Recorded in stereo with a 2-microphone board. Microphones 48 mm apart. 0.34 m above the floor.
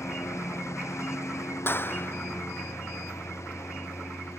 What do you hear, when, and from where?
0.0 s a lawn mower: 90° left; by 4.4 s 80° left
1.7 s a clap: 50° left (ahead or behind)